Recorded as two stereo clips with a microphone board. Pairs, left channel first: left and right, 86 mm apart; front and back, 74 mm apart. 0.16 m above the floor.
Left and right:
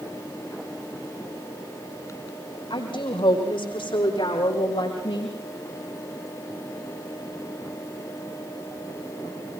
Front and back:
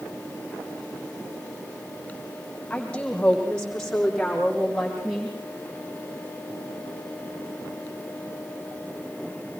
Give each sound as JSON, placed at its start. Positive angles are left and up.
{"t": 2.7, "sound": "a woman speaking", "azimuth_deg": 75, "distance_m": 8.0}